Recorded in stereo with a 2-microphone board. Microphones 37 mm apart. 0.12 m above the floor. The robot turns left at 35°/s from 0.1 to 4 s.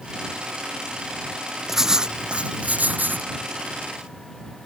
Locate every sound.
1.7 s writing: 10° right; by 3.3 s 70° right